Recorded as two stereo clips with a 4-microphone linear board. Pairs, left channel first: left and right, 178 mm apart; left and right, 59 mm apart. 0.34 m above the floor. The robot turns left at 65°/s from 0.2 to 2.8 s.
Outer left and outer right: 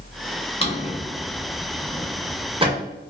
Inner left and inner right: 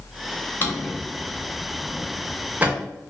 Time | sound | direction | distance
0.6 | a drawer | 35° left (ahead or behind) | 0.6 m